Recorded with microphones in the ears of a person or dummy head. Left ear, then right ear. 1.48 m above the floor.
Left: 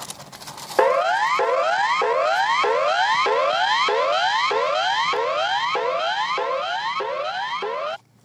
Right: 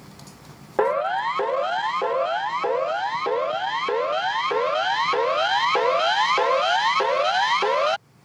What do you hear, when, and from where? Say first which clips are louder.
0.8 s a siren: left 4 dB; 75° left (ahead or behind); by 8.0 s 20° right (ahead or behind)